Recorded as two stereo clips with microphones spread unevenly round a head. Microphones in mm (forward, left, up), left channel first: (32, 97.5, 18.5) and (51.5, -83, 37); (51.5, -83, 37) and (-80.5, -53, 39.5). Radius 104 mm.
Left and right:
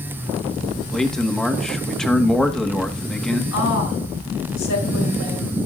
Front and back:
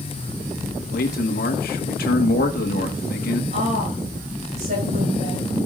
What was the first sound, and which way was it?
A man speaking, 10° left.